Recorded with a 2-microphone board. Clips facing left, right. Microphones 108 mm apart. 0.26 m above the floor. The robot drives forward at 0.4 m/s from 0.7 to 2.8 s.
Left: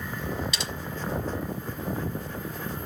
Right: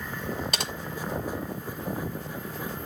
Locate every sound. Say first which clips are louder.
0.5 s typing on a keyboard: right 2 dB; 50° right (ahead or behind), 1.3 m